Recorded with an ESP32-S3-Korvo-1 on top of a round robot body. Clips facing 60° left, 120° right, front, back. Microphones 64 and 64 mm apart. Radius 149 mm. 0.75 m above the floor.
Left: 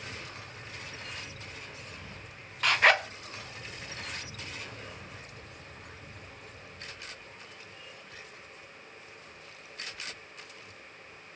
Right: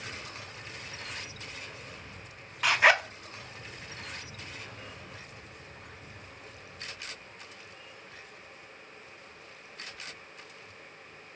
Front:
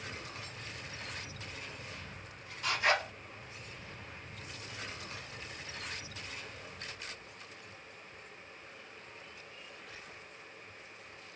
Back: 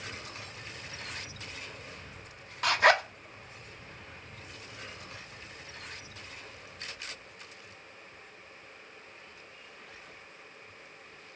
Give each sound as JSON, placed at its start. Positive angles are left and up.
{"t": 2.6, "sound": "a zipper", "azimuth_deg": 155, "distance_m": 0.5}